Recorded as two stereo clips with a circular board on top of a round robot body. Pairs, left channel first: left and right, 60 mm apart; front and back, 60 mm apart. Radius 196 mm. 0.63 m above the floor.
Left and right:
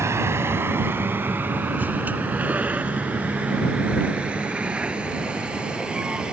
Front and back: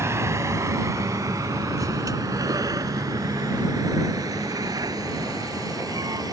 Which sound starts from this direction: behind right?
A vehicle, at 0.0 s.